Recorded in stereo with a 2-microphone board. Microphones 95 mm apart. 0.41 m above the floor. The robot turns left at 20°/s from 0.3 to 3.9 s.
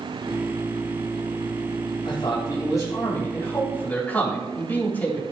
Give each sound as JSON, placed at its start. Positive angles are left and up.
{"t": 2.0, "sound": "a man speaking", "azimuth_deg": 55, "distance_m": 3.5}